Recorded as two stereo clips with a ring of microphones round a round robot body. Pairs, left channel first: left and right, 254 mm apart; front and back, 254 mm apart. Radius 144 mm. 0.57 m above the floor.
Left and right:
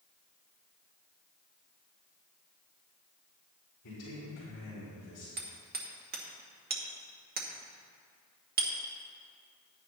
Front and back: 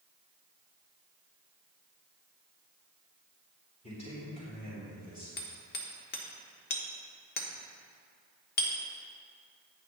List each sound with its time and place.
3.8 s a man speaking: 65° left, 4 m; by 5.3 s 55° left, 3.5 m
5.4 s hammering: 45° right, 1.2 m